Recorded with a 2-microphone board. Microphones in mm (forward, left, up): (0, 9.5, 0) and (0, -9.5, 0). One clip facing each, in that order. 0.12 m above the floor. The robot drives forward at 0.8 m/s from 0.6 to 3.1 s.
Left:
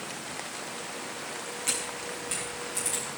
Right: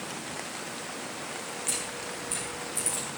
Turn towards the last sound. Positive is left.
turn(degrees=75)  # may be behind; listen again after turning